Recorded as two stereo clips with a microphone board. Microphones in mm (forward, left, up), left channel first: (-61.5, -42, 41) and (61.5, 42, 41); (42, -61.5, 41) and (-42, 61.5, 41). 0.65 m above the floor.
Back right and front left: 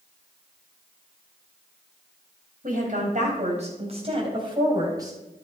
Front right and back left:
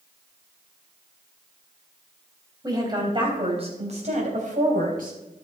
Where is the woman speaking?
60° left, 3.5 m; by 5.1 s 100° left, 4 m.